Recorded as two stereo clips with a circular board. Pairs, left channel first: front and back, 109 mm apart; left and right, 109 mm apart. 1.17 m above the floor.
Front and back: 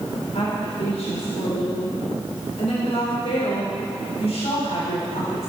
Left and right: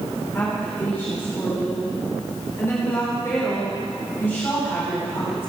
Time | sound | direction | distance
0.3 | a woman speaking | 20° left | 4 m